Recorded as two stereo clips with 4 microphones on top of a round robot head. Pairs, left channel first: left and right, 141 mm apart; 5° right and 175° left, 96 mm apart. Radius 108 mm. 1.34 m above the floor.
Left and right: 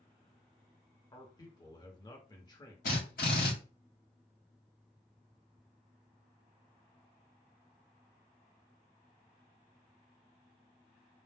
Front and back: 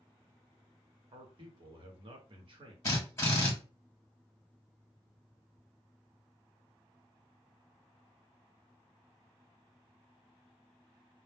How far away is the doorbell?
No doorbell in this recording.